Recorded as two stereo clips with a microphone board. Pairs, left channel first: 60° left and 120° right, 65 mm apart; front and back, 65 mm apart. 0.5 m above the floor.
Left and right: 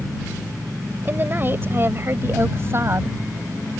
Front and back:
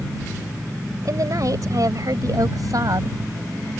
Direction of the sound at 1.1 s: 175° right.